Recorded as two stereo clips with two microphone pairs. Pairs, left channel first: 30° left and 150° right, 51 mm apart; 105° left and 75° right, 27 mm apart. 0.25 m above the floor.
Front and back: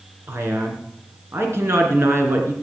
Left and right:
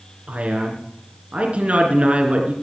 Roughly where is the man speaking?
Behind right.